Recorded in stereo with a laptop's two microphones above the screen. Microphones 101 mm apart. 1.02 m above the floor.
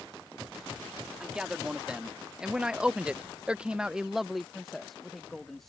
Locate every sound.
1.2 s a man speaking: 5° right (ahead or behind); by 5.7 s 5° left (ahead or behind)